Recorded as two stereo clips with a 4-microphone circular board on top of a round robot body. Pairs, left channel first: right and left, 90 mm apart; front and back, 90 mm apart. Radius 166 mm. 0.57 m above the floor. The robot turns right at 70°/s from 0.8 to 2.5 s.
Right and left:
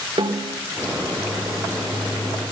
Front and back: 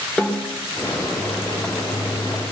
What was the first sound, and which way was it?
A snare drum, 80° left.